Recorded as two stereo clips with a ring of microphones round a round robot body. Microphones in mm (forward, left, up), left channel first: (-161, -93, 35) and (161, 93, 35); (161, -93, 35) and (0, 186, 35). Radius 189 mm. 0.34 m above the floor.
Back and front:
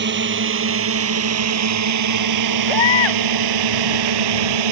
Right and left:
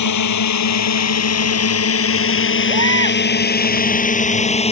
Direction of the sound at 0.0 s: 30° right.